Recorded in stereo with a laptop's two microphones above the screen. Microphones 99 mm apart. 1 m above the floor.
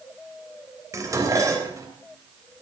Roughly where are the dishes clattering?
Right.